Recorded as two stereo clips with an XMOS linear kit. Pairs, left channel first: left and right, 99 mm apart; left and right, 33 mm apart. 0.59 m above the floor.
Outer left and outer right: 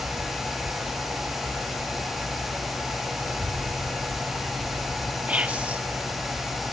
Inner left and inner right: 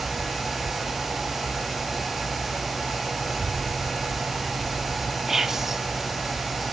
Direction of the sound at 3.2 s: 25° right (ahead or behind).